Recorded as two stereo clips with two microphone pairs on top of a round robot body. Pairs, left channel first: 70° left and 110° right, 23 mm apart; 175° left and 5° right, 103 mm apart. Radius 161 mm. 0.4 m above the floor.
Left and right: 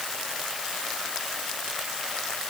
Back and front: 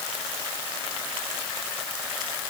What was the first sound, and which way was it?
Only background noise.